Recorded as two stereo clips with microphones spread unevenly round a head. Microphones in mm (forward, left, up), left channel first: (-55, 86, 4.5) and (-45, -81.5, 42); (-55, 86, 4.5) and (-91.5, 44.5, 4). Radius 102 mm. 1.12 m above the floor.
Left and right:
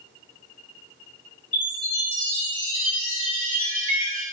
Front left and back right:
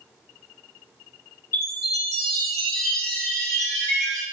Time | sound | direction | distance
1.5 | a chime | 20° right | 3.5 m